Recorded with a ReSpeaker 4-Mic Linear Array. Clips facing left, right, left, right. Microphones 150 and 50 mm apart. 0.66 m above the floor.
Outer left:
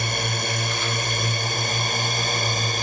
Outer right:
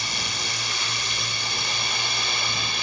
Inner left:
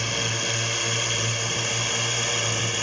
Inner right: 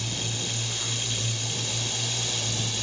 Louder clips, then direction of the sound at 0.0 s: Outer left 7 dB, inner left 6 dB; 55° left (ahead or behind).